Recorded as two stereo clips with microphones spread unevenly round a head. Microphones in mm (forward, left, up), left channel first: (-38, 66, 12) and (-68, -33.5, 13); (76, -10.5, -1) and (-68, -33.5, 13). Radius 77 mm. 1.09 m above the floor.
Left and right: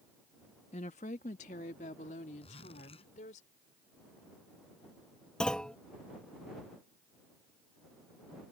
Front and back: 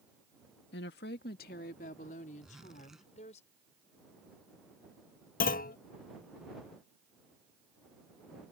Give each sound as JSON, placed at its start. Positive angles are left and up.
{"t": 0.7, "sound": "a woman speaking", "azimuth_deg": 25}
{"t": 2.4, "sound": "a zipper", "azimuth_deg": 100}
{"t": 5.4, "sound": "a clunk", "azimuth_deg": -10}